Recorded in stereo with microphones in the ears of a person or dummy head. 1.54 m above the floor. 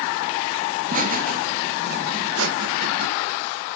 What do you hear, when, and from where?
0.8 s laughter: 40° right (ahead or behind), 3 m; by 3.1 s 85° right, 1.7 m